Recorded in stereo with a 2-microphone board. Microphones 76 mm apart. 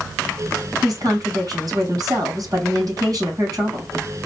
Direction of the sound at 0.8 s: 50° right (ahead or behind).